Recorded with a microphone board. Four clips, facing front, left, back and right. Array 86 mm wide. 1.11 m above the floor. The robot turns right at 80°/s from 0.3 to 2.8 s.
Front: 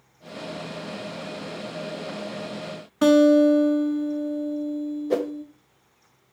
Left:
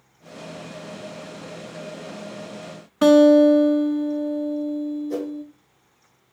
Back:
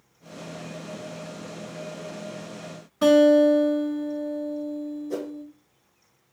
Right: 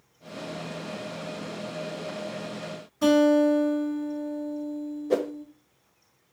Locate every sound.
3.0 s a guitar: 65° left, 0.9 m
5.1 s a whoosh: 40° right, 0.5 m